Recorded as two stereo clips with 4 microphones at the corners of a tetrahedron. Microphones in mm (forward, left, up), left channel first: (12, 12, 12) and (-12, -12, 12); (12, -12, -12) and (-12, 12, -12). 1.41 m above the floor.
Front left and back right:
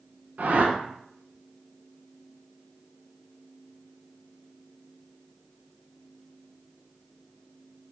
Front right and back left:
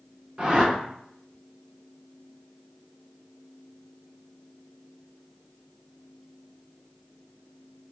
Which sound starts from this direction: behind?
A whoosh, at 0.4 s.